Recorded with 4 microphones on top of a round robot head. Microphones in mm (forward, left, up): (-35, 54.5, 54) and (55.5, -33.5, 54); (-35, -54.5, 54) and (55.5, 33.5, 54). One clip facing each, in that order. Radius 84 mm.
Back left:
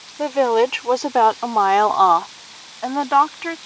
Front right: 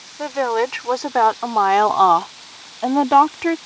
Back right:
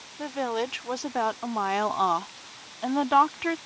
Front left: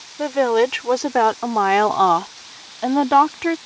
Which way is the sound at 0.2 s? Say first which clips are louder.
Back left 4 dB, front left 12 dB; 70° left.